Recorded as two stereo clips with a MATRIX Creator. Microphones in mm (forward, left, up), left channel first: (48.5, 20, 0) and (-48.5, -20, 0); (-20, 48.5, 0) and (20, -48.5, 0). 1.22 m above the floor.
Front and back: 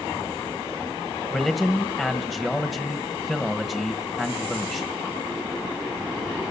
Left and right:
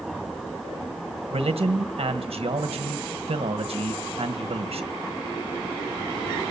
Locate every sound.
1.3 s a man speaking: 70° right, 1.4 m